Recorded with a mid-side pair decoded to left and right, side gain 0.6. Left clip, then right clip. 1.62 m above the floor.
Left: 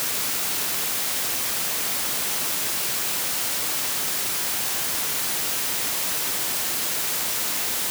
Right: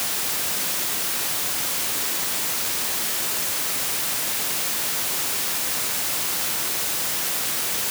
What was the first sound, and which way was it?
Only background noise.